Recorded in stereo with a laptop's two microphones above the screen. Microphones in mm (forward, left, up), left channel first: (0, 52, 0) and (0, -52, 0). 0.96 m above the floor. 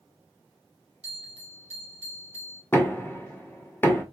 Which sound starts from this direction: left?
Knocking, at 2.7 s.